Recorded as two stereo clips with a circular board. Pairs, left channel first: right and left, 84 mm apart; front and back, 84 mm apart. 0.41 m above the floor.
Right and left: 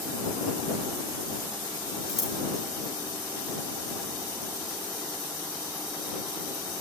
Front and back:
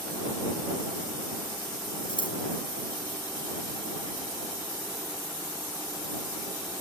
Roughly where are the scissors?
Ahead.